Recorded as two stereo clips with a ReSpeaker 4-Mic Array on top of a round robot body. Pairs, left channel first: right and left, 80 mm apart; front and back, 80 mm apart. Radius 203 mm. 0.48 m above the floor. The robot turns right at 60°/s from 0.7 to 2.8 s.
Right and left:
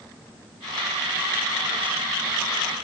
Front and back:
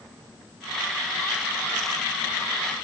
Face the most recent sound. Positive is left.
No sound to turn to.